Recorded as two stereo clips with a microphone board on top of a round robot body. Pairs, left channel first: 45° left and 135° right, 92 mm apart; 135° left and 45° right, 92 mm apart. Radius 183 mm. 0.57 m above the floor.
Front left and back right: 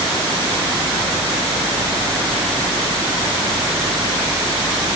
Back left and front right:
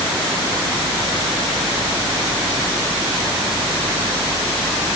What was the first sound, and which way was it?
Only background noise.